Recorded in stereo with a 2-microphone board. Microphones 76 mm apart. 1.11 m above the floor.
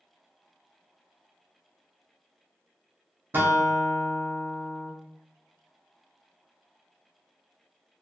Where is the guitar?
30° right (ahead or behind), 0.6 m.